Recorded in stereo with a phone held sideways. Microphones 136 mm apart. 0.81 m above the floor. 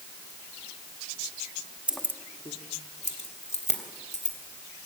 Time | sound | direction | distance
1.9 | keys jangling | 10° right (ahead or behind) | 0.8 m